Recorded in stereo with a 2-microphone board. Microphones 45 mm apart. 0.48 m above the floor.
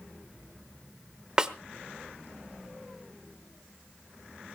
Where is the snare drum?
20° right (ahead or behind), 1.0 m.